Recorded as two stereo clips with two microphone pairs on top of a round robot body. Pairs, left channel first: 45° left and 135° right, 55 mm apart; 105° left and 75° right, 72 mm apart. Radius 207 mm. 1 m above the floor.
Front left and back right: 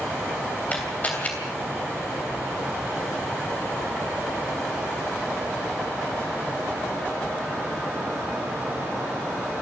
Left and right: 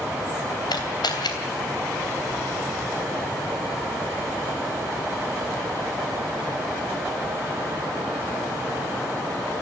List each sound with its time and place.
0.7 s a camera shutter: 110° left, 3 m